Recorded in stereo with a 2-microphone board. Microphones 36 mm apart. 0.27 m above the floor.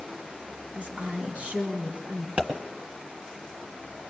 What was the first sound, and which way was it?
A woman speaking, 50° right (ahead or behind).